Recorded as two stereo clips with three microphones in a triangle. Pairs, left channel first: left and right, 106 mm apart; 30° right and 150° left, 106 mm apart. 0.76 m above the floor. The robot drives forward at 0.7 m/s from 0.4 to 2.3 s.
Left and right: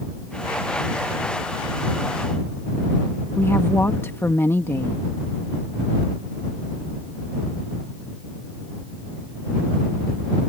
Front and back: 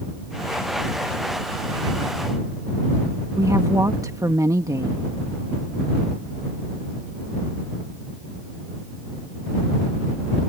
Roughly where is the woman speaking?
Behind left.